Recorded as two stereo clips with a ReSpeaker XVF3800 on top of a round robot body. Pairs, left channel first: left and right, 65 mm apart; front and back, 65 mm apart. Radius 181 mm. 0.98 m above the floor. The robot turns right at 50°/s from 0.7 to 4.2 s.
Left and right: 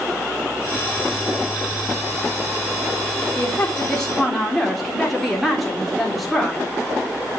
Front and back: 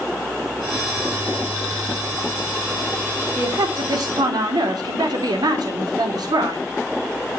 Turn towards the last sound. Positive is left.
turn(degrees=180)